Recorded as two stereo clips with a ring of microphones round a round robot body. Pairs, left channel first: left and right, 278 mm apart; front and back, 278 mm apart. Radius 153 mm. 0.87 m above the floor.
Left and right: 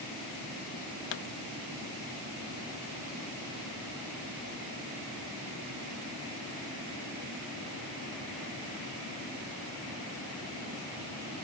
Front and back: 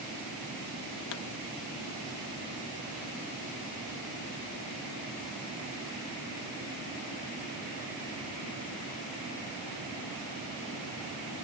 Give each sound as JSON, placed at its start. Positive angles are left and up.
{"t": 1.1, "sound": "a pop", "azimuth_deg": 45}